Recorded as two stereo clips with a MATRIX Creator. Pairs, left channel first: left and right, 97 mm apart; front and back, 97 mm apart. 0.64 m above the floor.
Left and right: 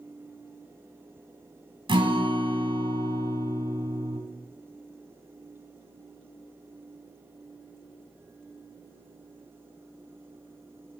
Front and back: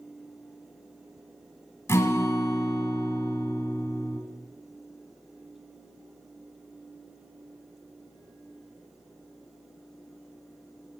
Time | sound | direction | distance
1.9 | a guitar | 60° right | 1.7 m